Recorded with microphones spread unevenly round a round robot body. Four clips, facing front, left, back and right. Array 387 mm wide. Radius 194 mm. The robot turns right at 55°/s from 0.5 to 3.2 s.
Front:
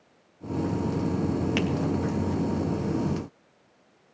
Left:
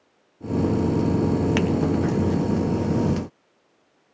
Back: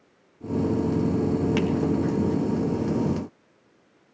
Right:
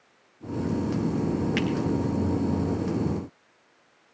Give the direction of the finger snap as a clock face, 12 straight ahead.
10 o'clock.